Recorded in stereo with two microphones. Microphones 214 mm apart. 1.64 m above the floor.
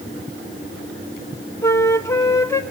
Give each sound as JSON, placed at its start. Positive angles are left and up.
{"t": 1.6, "sound": "a flute", "side_deg": 10, "distance_m": 1.2}